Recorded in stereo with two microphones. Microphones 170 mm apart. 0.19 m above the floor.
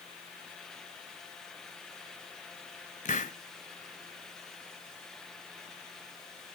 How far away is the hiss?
About 1.1 m.